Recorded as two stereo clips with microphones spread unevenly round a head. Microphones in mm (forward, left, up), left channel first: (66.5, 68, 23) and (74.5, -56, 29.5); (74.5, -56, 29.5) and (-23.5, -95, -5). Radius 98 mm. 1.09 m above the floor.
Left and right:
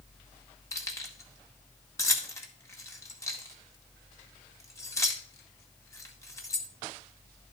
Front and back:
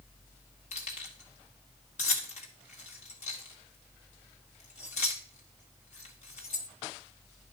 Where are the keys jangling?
25° left, 1.9 m.